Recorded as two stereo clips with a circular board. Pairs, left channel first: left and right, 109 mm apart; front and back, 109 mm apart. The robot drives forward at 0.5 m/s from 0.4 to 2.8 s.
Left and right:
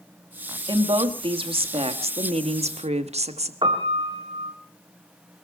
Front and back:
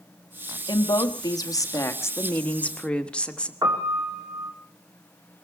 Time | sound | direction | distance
0.7 | a woman speaking | 45° right | 1.9 m
3.6 | a piano | 125° right | 4 m